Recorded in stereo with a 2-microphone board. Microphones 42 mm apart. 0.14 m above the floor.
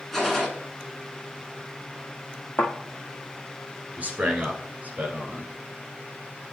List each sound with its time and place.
0.1 s a gunshot: centre (ahead or behind), 1.9 m
2.6 s a thud: 60° left (ahead or behind), 1.8 m
4.0 s a man speaking: 40° right (ahead or behind), 1.8 m